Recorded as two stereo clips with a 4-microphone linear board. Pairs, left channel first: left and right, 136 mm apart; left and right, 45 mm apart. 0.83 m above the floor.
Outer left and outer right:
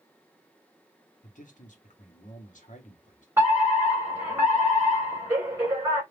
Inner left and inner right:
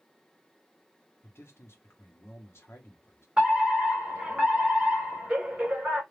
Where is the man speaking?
65° left (ahead or behind), 1.3 m.